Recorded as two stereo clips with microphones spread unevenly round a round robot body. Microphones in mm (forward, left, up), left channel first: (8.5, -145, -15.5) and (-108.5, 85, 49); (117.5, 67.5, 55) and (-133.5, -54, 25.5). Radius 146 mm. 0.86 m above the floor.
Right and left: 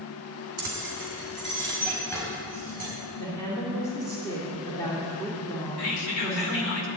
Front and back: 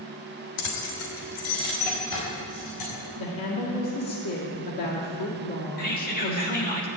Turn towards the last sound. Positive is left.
turn(degrees=-35)